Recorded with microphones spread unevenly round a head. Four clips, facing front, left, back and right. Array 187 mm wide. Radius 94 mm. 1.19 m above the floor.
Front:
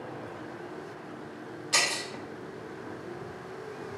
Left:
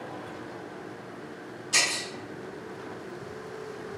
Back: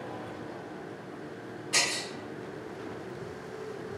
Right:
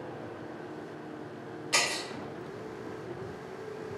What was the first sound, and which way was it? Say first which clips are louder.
Breaking glass: even, front 2 dB; 80° right.